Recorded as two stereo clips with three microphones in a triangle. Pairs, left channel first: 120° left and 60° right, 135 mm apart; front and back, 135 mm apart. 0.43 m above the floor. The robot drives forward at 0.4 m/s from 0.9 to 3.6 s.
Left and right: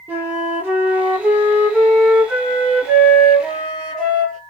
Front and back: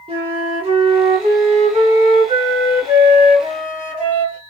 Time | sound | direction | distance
0.1 | a flute | 135° right | 1.5 m